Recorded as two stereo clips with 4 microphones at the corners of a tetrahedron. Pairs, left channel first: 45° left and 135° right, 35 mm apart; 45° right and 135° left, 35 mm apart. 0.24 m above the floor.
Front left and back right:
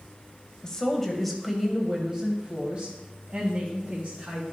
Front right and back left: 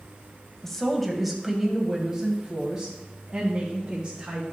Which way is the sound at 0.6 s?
25° left.